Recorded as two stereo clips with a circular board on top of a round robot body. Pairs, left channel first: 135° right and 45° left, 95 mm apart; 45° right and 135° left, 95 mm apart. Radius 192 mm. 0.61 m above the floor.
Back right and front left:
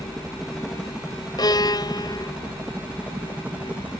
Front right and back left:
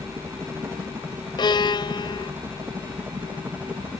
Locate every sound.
0.0 s a helicopter: 135° left; by 4.0 s 90° left
1.4 s a violin: 85° right